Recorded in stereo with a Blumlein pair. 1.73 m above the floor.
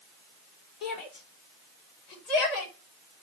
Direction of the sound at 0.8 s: 30° left.